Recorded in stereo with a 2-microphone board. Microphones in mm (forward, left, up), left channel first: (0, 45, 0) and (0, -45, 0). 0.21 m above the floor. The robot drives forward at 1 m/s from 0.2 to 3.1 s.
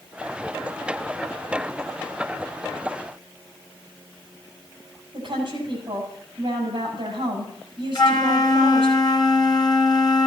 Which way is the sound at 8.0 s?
50° left (ahead or behind).